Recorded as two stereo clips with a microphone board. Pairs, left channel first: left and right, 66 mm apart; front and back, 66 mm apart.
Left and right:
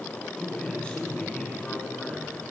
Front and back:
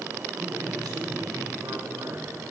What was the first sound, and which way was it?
A man speaking, 170° left.